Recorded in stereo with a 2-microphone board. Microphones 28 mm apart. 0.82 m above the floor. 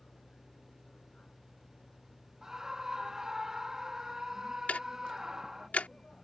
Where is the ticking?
75° left (ahead or behind).